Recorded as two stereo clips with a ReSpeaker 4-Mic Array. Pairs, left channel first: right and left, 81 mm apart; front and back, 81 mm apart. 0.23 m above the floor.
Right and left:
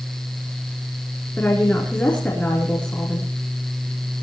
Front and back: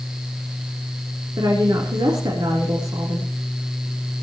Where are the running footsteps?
No running footsteps in this recording.